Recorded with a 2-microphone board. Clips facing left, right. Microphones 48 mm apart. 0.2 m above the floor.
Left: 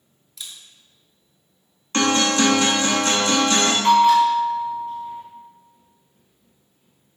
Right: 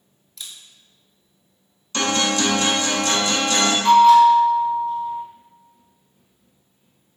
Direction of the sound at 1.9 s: 40° left (ahead or behind).